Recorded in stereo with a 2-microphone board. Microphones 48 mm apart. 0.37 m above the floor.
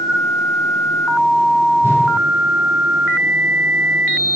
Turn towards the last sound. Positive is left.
turn(degrees=-75)  # may be behind; listen again after turning